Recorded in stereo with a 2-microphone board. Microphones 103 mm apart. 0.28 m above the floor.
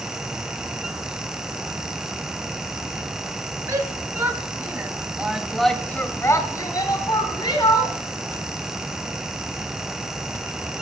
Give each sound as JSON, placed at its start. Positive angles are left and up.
{"t": 3.7, "sound": "a shout", "side_deg": -30, "distance_m": 3.5}